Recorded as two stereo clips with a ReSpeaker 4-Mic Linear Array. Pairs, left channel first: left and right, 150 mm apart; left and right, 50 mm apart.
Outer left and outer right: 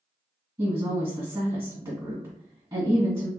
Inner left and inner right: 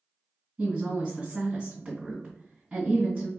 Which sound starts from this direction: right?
A woman speaking, at 0.6 s.